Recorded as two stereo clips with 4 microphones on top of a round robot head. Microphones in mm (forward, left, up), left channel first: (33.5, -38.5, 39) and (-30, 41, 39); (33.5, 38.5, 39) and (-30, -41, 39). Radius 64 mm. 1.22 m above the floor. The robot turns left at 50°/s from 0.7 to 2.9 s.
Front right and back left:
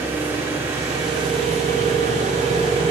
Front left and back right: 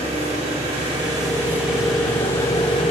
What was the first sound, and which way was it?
An engine running, 160° right.